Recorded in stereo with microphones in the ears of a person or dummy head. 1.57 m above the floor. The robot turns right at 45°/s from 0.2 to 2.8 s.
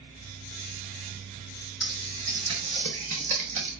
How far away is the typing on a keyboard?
About 0.8 m.